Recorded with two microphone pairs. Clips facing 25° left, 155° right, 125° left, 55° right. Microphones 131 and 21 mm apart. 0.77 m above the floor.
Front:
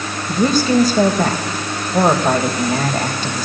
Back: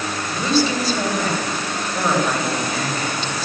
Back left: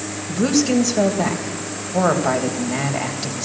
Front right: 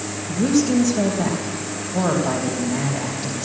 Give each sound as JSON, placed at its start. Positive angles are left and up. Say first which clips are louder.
{"t": 0.3, "sound": "a woman speaking", "louder": "front 5 dB, back left 1 dB", "azimuth_deg": 70, "distance_m": 3.0}